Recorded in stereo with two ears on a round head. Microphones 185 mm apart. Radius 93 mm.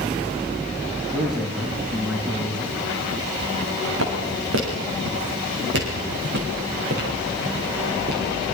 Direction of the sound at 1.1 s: Centre (ahead or behind).